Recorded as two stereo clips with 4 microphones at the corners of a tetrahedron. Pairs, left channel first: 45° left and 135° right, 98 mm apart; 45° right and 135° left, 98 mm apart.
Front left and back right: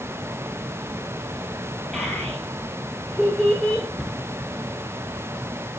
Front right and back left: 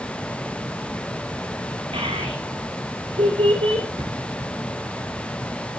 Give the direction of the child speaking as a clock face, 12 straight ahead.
8 o'clock.